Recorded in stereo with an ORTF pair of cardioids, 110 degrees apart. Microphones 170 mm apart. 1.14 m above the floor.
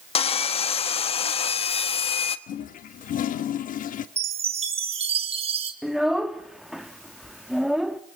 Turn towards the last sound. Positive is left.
turn(degrees=0)